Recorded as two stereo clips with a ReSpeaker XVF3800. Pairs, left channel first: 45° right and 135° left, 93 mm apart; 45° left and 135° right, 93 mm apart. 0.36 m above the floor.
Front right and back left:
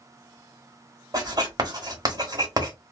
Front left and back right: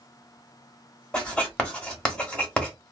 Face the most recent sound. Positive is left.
turn(degrees=120)